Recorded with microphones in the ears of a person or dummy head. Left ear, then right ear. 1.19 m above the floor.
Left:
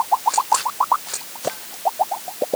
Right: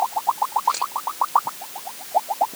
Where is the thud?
I don't hear a thud.